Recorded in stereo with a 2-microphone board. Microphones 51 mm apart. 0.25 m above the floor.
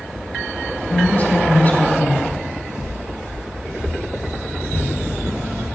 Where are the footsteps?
45° right (ahead or behind), 1.1 m; by 5.7 s 80° right, 5 m.